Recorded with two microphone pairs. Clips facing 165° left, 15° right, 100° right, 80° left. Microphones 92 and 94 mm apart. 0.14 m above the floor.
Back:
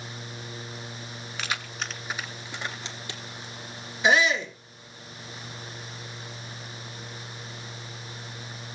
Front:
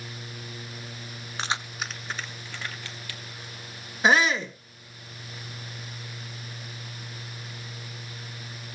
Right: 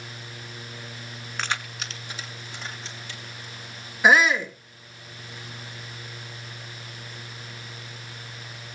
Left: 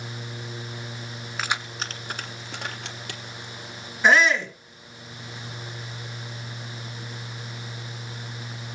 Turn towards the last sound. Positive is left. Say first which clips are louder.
# front 1 dB, even
turn(degrees=-25)